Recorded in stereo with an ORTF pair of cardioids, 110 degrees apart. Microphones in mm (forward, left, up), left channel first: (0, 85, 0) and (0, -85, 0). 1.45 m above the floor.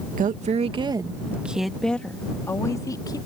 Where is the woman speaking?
55° right; by 3.2 s 20° left.